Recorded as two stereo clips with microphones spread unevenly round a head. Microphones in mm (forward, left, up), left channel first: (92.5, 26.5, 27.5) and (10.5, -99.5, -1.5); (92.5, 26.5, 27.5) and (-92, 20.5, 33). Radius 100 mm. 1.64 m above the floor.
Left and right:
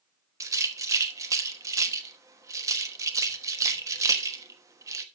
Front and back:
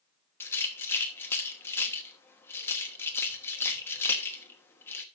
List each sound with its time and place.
0.4 s a rattle: 60° right, 1.0 m